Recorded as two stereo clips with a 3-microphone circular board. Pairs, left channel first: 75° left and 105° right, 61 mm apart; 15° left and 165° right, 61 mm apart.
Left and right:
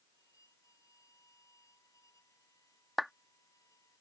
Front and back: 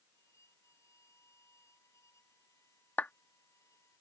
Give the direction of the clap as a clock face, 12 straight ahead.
1 o'clock.